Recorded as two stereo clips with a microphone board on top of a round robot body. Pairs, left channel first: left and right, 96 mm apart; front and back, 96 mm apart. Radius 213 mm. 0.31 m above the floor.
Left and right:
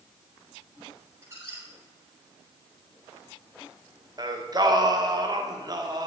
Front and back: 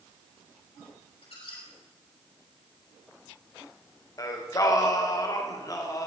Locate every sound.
1.2 s a squeak: 30° right, 5.5 m
4.2 s singing: 50° right, 2 m